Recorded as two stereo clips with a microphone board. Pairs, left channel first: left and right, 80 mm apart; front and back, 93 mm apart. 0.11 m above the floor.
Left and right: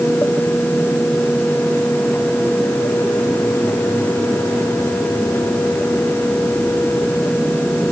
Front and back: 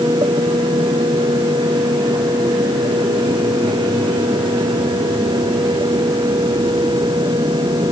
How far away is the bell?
I don't hear a bell.